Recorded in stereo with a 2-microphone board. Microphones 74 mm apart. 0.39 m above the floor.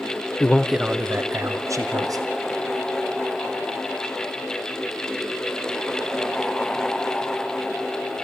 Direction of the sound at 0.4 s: 25° left (ahead or behind).